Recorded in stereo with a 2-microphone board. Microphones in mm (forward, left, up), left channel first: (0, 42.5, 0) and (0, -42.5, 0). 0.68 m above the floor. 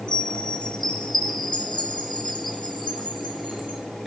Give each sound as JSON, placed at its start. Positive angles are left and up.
{"t": 0.1, "sound": "a chime", "side_deg": 65, "distance_m": 2.5}